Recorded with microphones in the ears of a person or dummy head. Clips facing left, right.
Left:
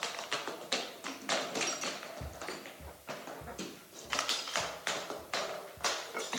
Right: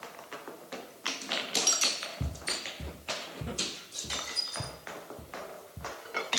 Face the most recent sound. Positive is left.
turn(degrees=-45)  # may be behind; listen again after turning